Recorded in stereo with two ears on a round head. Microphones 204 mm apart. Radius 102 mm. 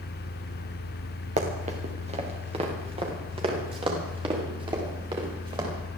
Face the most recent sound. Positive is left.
turn(degrees=-20)  # may be behind; listen again after turning